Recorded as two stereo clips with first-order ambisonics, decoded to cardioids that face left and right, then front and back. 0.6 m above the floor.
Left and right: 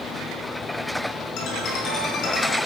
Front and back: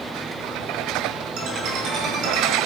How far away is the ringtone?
About 3 m.